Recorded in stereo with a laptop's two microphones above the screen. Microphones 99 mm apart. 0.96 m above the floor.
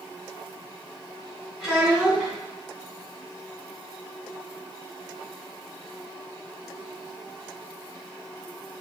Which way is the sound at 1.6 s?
15° right (ahead or behind).